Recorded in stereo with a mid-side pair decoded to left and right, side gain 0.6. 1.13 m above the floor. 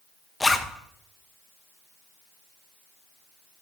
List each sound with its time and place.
0.4 s a zipper: 10° left, 0.8 m